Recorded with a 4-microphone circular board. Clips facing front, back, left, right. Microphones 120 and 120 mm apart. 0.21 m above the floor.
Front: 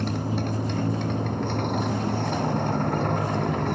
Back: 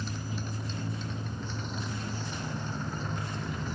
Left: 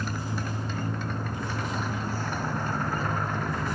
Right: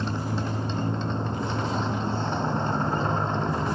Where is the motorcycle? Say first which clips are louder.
Front 11 dB, right 4 dB; 25° right.